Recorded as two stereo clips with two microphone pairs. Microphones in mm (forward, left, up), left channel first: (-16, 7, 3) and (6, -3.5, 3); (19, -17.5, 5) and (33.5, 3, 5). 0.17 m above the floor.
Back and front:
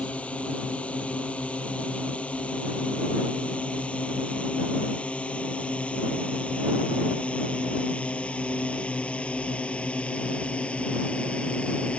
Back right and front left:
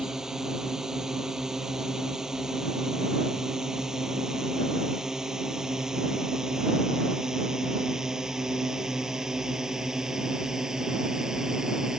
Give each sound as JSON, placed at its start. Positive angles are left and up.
{"t": 0.0, "sound": "a drone", "azimuth_deg": 125}